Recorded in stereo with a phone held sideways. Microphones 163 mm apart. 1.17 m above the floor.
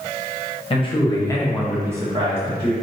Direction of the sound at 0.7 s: 35° left (ahead or behind).